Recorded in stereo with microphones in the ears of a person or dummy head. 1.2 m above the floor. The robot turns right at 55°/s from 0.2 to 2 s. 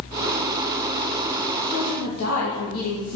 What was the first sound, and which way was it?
A woman speaking, 60° left (ahead or behind).